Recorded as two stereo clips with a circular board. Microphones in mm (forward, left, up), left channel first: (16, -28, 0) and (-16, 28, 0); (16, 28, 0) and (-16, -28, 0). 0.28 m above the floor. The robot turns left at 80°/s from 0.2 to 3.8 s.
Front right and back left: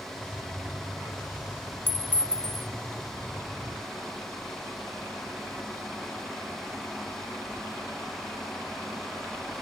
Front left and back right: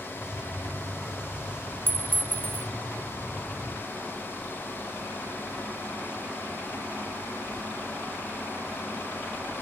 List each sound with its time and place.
1.9 s a clink: 90° right, 0.5 m; by 2.7 s 155° right, 0.5 m